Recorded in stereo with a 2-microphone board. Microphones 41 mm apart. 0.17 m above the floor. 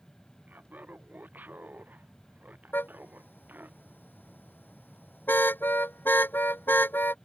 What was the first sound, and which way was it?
Laughter, 50° right (ahead or behind).